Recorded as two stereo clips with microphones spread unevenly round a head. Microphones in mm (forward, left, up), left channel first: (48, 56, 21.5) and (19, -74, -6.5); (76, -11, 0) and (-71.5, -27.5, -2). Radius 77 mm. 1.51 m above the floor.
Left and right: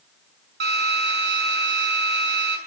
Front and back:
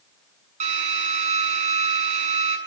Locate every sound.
0.6 s a drill: 130° right, 7 m